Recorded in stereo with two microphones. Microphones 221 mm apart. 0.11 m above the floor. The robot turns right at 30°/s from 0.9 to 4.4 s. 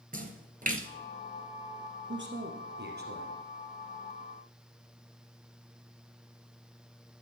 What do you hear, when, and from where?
0.1 s a splash: 40° right (ahead or behind), 1.0 m
2.1 s a man speaking: 90° right, 2 m; by 3.4 s 50° right, 2 m